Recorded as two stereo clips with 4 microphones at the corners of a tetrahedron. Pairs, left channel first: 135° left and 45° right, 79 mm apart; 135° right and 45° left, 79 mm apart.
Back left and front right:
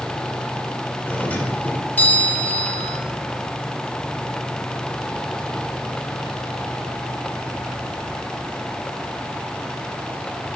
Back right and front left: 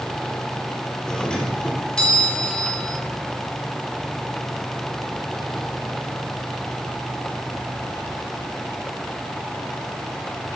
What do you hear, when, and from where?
1.1 s a doorbell: 160° left, 1.6 m